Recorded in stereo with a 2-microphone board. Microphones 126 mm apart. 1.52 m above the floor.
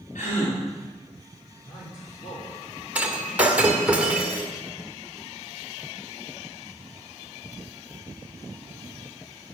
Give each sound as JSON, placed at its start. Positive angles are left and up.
{"t": 0.1, "sound": "a gasp", "side_deg": 85, "distance_m": 4.0}
{"t": 1.6, "sound": "a man speaking", "side_deg": 70, "distance_m": 6.5}
{"t": 3.0, "sound": "breaking glass", "side_deg": -10, "distance_m": 1.8}